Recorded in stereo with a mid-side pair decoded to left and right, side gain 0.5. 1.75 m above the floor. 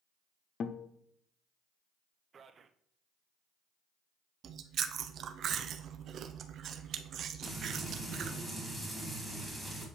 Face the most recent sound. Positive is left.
turn(degrees=0)